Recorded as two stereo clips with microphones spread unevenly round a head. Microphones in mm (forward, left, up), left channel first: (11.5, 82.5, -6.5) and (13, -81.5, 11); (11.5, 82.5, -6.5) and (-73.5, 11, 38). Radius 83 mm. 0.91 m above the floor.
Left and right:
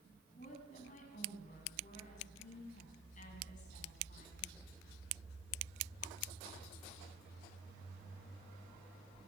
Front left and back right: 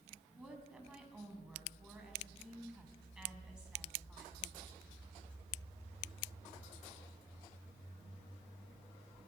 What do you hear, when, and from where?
0.4 s a woman speaking: 140° left, 7 m